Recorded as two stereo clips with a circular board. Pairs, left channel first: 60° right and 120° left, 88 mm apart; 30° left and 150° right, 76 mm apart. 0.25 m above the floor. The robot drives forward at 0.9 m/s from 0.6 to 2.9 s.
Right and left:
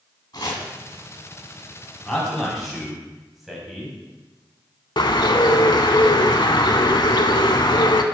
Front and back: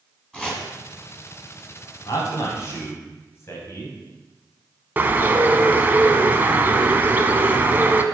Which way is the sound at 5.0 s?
85° right.